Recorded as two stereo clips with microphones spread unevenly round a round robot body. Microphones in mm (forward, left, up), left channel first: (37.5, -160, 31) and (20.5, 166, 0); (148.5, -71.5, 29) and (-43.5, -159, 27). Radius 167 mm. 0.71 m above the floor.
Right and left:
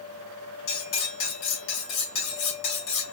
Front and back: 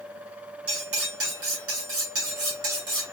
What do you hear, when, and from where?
0.7 s cutlery clinking: 140° right, 2 m